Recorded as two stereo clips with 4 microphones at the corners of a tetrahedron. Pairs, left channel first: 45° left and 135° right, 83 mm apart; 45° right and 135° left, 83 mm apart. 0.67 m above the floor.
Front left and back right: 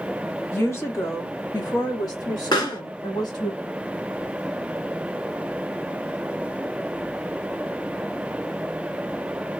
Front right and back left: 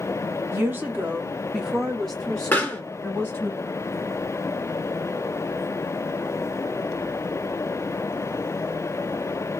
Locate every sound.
0.5 s a woman speaking: 90° left, 1.3 m; by 3.5 s 20° left, 2 m
2.5 s a pop: 25° left, 2 m